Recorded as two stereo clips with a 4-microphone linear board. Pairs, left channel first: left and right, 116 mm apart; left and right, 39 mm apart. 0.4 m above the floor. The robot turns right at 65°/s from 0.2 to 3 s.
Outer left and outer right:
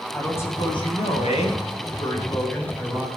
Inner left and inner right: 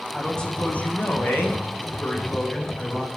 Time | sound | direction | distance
0.1 | a man speaking | 15° left | 3.5 m